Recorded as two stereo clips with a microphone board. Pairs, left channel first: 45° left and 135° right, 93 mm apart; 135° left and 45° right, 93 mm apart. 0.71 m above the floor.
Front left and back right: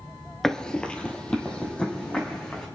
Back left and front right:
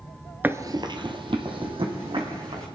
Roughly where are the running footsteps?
Ahead right.